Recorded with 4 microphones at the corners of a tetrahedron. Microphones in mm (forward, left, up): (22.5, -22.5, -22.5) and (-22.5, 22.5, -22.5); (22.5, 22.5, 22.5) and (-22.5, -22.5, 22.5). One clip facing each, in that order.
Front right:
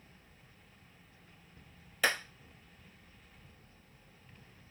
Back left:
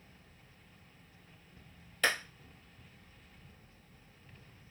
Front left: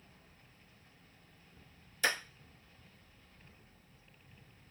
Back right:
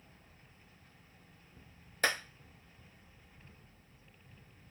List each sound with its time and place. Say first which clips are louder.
2.0 s a clap: even, back right 1 dB; 125° right, 0.9 m